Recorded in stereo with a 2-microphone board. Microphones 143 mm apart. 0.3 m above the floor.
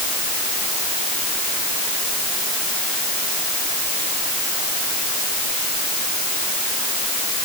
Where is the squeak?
I don't hear a squeak.